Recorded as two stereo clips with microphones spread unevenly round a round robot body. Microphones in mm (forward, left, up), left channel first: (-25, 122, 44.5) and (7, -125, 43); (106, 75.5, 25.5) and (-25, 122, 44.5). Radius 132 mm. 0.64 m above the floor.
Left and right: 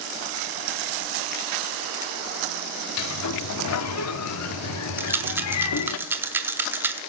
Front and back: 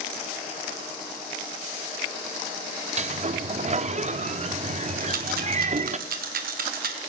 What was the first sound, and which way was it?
A sliding door, 120° left.